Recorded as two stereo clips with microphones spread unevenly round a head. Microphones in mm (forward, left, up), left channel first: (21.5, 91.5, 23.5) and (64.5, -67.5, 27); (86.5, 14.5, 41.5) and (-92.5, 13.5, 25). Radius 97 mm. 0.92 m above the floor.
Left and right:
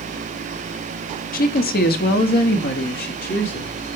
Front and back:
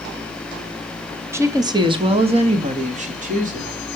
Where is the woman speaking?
110° left, 1.1 m; by 3.7 s 140° left, 2.5 m.